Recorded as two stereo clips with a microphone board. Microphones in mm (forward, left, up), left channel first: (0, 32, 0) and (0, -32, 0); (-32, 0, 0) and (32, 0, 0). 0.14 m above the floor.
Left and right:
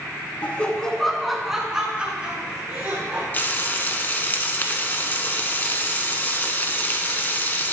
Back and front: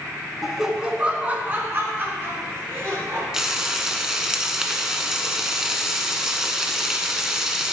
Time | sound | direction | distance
0.4 | laughter | 80° left | 1.1 m
3.3 | frying | 75° left | 1.0 m